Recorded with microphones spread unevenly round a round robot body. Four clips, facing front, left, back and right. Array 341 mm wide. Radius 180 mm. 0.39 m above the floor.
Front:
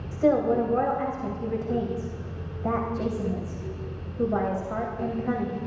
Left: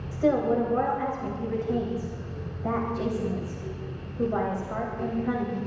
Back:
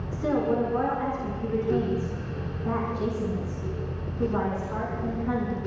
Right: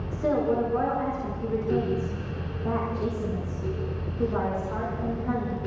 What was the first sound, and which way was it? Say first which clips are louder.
A woman speaking: left 2 dB, front 4 dB; 30° left.